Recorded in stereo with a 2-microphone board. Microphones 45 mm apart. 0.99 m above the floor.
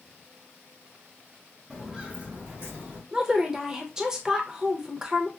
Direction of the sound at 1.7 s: 5° right (ahead or behind).